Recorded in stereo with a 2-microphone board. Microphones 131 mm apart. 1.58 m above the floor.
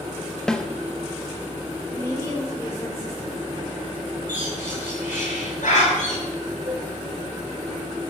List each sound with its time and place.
0.5 s a snare drum: 5° left (ahead or behind), 0.9 m
1.9 s a woman speaking: 25° left (ahead or behind), 7.5 m
4.3 s a bird: 90° left, 7.5 m
6.7 s a cowbell: 65° right (ahead or behind), 3.5 m